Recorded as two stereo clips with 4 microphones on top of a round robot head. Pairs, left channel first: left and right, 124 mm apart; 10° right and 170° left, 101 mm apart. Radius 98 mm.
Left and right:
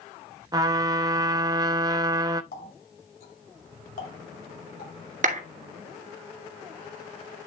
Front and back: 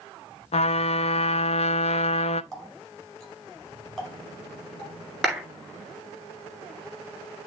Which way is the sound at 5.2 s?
105° right.